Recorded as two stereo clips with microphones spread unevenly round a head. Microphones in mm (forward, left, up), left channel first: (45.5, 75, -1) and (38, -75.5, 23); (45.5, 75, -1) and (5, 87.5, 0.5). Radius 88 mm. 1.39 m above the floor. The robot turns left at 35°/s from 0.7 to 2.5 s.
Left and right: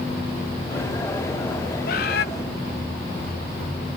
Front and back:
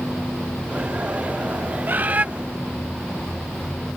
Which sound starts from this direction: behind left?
A bird, at 1.9 s.